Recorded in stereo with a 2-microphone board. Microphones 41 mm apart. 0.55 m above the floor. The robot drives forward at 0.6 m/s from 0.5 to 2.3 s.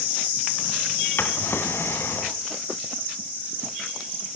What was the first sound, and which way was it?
A drawer, 65° left (ahead or behind).